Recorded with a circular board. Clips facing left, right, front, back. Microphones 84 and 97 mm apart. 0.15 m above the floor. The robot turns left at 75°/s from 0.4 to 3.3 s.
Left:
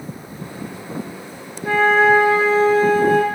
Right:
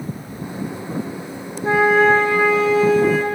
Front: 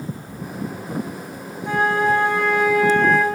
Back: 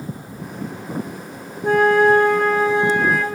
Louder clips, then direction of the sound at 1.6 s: Even, back 5 dB; 150° right.